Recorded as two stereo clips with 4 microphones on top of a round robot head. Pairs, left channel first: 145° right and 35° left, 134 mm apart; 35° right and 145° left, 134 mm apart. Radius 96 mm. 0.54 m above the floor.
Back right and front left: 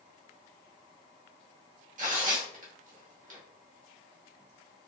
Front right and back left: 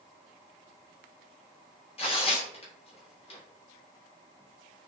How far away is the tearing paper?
About 1.0 m.